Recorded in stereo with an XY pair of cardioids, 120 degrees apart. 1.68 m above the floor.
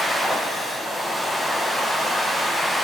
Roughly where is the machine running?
Ahead.